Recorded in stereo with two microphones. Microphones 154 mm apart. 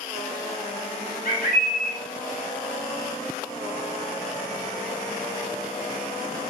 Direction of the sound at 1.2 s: 70° left (ahead or behind).